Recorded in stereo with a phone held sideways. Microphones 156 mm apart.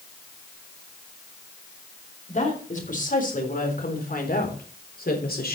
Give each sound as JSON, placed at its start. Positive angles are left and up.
{"t": 2.3, "sound": "a woman speaking", "side_deg": 55, "distance_m": 4.0}